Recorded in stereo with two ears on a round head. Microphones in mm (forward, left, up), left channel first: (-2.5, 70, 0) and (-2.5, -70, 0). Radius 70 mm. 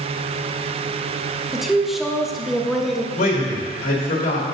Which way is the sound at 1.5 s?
Centre (ahead or behind).